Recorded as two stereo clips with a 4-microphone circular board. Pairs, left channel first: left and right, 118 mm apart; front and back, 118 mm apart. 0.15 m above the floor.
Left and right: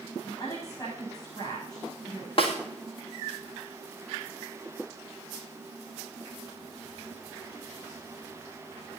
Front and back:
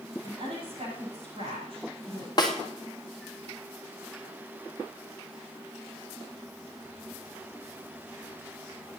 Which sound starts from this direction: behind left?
A woman speaking, at 0.2 s.